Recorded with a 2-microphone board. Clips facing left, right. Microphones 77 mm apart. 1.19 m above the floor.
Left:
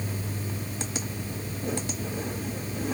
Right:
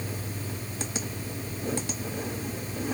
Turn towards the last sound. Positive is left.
No sound to turn to.